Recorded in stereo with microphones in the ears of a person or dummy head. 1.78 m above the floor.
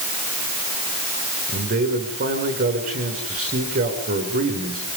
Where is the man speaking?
50° right (ahead or behind), 7.5 m.